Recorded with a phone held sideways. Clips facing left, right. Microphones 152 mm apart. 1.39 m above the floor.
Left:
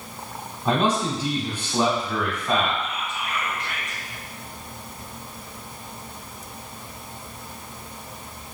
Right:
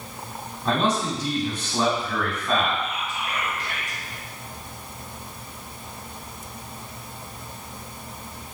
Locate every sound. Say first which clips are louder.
0.7 s a man speaking: left 1 dB; 10° left (ahead or behind), 1.9 m
2.8 s whispering: right 1 dB; 35° right (ahead or behind), 1.3 m